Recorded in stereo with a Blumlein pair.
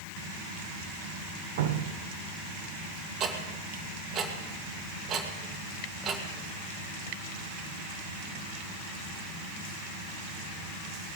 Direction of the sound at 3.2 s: 25° right.